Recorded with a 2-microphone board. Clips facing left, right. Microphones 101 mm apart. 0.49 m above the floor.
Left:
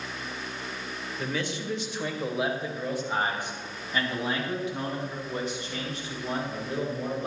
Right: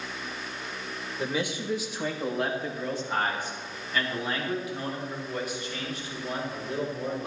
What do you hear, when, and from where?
1.2 s a man speaking: 20° right (ahead or behind), 1.9 m; by 7.3 s 40° left (ahead or behind), 6.5 m